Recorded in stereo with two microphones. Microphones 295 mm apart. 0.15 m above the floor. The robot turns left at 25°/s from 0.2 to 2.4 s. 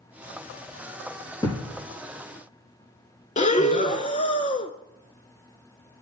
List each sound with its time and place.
1.4 s a thud: 15° left (ahead or behind), 4.5 m; by 1.7 s 20° left (ahead or behind), 4.5 m
3.4 s breathing: 25° left (ahead or behind), 0.6 m